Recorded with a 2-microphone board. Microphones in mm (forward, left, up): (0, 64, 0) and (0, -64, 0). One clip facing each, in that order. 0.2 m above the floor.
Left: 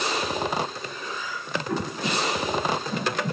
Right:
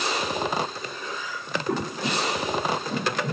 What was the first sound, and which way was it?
Breathing, 60° right (ahead or behind).